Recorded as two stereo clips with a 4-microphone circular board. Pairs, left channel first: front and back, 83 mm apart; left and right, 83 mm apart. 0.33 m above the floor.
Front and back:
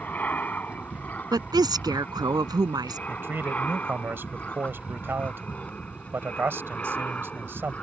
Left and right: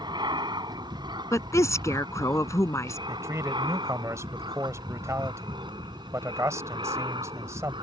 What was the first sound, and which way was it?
An aircraft, 70° right.